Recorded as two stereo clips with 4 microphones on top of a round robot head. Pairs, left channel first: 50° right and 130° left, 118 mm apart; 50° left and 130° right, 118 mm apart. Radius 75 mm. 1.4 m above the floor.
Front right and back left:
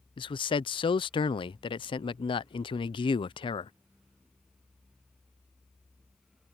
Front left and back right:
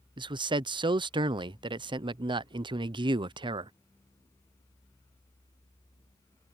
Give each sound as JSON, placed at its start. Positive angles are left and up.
{"t": 0.2, "sound": "a man speaking", "azimuth_deg": -85}